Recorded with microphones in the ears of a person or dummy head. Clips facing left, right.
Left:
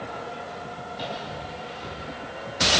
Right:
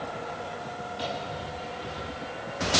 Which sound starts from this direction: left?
A microwave, at 0.9 s.